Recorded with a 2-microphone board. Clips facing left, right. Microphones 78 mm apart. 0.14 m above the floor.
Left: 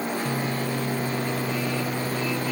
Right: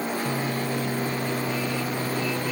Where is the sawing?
I don't hear sawing.